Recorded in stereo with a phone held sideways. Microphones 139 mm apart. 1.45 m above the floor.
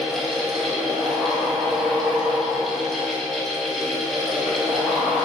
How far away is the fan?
About 1.5 m.